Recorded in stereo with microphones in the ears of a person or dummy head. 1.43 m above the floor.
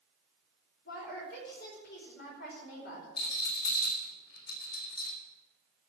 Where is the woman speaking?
60° left (ahead or behind), 5 m.